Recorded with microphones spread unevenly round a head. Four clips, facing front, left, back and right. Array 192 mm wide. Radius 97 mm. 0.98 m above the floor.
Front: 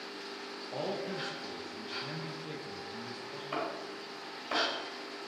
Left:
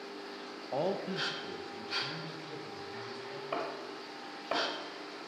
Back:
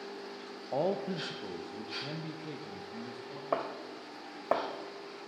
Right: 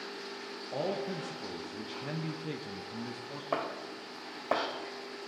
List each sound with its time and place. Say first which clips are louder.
0.7 s a man speaking: left 1 dB, back 5 dB; 160° left, 0.8 m; by 3.4 s 95° right, 1.3 m
3.5 s chopping: right 3 dB, back 3 dB; 155° right, 1.4 m